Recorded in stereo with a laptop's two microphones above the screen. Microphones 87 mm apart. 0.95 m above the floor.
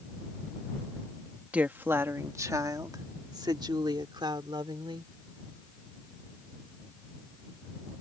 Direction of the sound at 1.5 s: 15° right (ahead or behind).